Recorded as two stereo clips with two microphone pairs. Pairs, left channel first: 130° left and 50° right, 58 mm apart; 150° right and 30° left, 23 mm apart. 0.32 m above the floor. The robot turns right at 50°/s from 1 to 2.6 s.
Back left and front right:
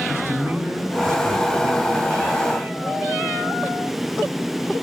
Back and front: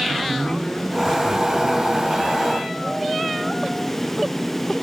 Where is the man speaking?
90° right, 2.5 m; by 2.8 s 10° right, 2.5 m.